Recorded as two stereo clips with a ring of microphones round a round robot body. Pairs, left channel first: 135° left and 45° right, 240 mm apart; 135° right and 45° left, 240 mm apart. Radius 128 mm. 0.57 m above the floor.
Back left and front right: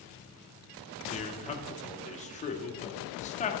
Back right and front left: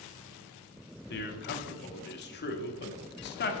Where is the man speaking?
170° right, 1.2 m.